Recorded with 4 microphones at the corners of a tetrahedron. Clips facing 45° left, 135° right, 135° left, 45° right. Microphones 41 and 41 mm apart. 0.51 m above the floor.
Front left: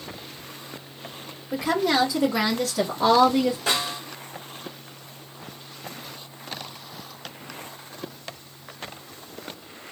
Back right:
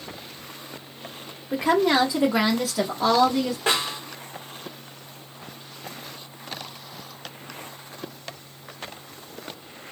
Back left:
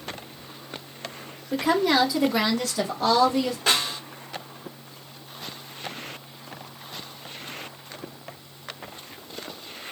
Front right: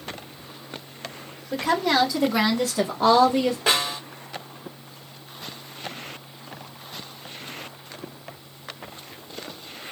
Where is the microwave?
No microwave in this recording.